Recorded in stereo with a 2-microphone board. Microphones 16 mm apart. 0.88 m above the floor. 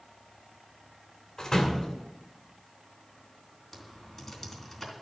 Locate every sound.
1.4 s a door slam: 30° left (ahead or behind), 2.5 m
3.7 s typing on a keyboard: 5° left (ahead or behind), 3 m